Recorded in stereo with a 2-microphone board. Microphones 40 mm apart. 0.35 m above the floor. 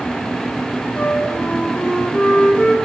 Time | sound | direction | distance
1.0 | a flute | 35° left (ahead or behind) | 1.2 m